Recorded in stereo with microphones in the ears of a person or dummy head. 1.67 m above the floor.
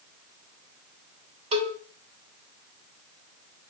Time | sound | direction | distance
1.5 | a cowbell | 35° right (ahead or behind) | 3 m